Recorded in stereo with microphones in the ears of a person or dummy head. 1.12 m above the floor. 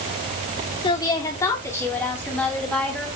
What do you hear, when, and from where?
0.8 s a woman speaking: 25° left (ahead or behind), 2 m; by 3.1 s 5° left (ahead or behind), 3 m